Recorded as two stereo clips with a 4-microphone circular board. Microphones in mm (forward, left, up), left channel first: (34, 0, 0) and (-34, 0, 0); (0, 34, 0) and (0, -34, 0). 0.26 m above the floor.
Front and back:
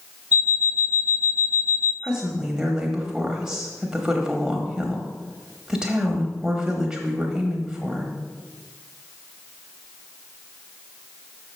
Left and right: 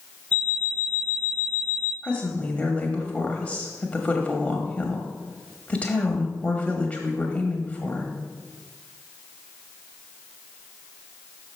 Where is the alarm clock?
145° left, 0.8 m.